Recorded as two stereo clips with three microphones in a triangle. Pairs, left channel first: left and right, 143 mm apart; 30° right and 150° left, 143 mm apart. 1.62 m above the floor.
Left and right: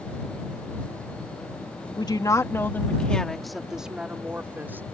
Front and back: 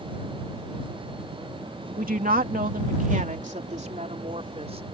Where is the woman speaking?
145° left; by 4.8 s 165° right.